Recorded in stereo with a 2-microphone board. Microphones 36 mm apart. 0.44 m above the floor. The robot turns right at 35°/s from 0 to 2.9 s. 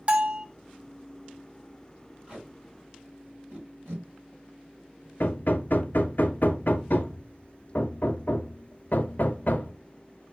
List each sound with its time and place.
0.1 s a bell: 35° right (ahead or behind), 0.5 m; by 0.5 s 20° right (ahead or behind), 0.5 m
2.3 s tape being pulled: 30° right (ahead or behind), 3 m; by 5.1 s 50° right (ahead or behind), 3 m
5.2 s hammering: 60° left (ahead or behind), 0.6 m